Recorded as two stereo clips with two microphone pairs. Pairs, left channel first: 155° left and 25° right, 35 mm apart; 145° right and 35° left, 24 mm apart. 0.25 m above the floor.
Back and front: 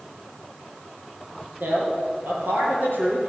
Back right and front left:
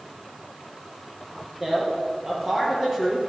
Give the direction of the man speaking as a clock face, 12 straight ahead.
2 o'clock.